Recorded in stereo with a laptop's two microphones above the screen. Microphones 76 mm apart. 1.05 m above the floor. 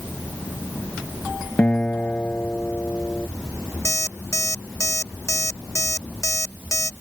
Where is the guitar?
20° left (ahead or behind).